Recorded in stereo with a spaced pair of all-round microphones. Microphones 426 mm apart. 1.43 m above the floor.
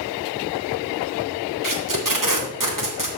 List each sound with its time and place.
1.6 s tape being pulled: 45° right (ahead or behind), 2.0 m